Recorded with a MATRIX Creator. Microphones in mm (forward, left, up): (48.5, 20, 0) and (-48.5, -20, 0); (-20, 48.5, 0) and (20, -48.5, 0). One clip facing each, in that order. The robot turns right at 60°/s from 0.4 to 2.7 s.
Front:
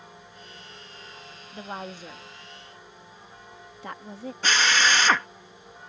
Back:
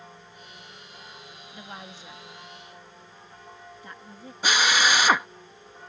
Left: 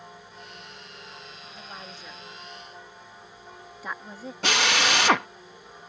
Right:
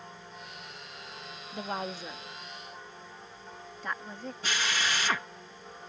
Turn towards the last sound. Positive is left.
turn(degrees=125)